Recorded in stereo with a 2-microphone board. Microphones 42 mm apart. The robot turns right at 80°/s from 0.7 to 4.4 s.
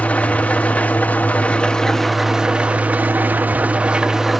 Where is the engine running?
65° left, 0.7 m; by 4.4 s straight ahead, 0.7 m.